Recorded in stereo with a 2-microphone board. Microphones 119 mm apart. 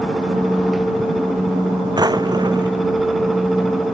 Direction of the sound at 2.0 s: 35° right (ahead or behind).